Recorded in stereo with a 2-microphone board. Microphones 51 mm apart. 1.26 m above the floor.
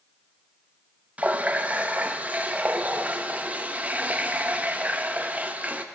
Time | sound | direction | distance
1.2 | a running tap | 30° right (ahead or behind) | 0.6 m